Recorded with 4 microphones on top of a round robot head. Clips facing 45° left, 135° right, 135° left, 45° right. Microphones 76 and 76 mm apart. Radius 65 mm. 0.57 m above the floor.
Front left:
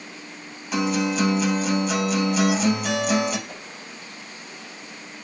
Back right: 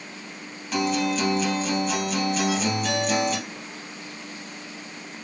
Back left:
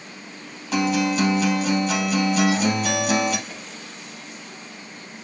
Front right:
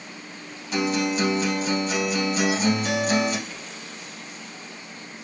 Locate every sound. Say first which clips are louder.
0.7 s a guitar: front left 1 dB, back left 3 dB; 130° left, 3 m
3.5 s a whoosh: back right 1 dB, back left 1 dB; 75° left, 3.5 m